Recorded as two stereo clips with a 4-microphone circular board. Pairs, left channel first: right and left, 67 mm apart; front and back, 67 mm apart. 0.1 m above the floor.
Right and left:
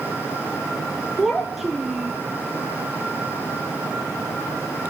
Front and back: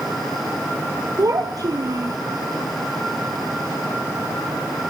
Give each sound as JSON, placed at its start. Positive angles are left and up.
{"t": 1.2, "sound": "a child speaking", "azimuth_deg": 175, "distance_m": 1.4}